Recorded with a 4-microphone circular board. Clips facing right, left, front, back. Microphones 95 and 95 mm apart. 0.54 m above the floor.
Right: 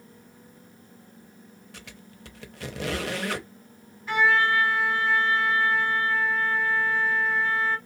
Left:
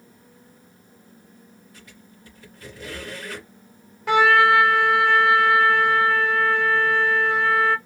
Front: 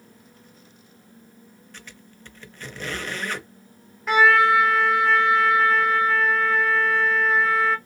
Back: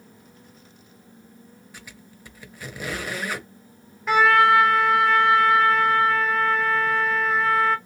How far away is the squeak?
About 0.7 m.